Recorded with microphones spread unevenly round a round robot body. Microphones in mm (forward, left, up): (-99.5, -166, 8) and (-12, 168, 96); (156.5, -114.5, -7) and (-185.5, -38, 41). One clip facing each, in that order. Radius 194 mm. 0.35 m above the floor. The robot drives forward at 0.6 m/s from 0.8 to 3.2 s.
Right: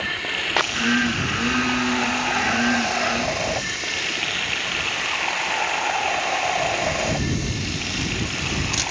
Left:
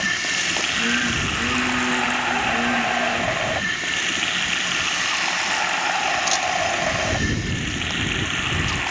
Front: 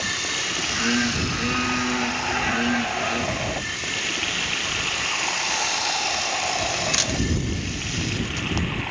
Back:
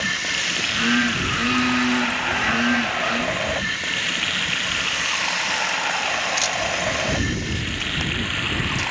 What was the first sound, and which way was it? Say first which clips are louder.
Running water: even, even; 125° left.